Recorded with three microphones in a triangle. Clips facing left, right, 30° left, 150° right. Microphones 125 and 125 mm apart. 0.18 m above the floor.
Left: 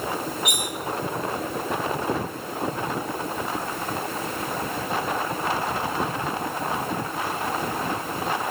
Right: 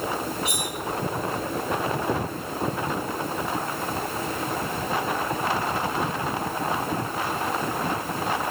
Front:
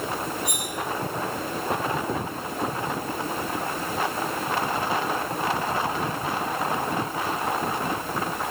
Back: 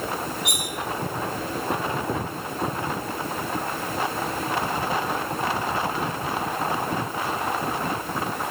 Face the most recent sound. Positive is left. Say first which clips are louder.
# even, even
turn(degrees=-145)